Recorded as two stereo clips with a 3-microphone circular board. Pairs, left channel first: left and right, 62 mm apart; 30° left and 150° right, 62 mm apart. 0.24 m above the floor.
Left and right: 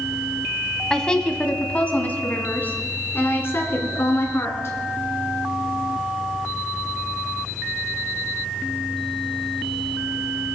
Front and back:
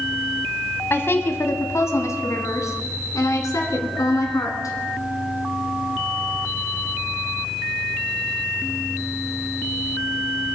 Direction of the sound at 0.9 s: 10° left.